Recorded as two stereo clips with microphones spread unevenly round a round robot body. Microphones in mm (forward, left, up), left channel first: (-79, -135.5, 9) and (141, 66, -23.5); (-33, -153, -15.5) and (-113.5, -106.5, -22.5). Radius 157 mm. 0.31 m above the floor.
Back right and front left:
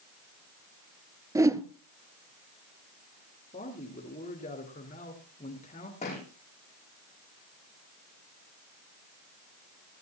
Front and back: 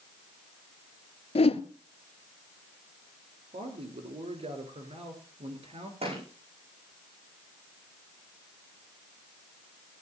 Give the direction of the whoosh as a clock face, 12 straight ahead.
1 o'clock.